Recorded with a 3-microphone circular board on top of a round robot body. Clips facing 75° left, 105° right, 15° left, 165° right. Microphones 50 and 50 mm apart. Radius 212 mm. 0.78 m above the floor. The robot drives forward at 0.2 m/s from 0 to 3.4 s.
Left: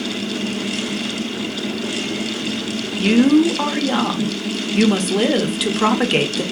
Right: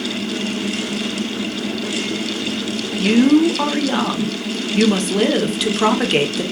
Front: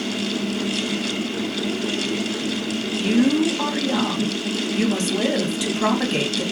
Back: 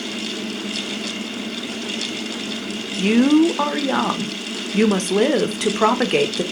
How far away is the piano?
I don't hear a piano.